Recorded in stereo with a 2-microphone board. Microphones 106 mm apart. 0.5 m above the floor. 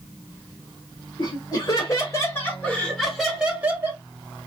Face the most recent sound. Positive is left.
turn(degrees=-25)  # may be behind; listen again after turning